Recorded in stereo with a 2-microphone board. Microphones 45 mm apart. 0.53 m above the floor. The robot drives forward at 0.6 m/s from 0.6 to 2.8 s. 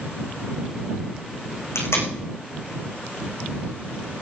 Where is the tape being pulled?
80° left, 7.5 m.